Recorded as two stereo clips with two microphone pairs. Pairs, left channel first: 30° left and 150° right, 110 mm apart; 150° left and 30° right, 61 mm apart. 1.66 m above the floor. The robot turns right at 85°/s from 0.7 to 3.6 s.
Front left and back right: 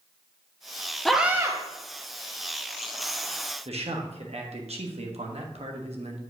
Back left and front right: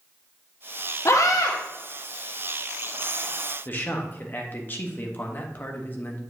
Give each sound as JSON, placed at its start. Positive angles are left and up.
{"t": 1.1, "sound": "a scream", "azimuth_deg": 115, "distance_m": 1.0}
{"t": 3.6, "sound": "a man speaking", "azimuth_deg": -155, "distance_m": 1.0}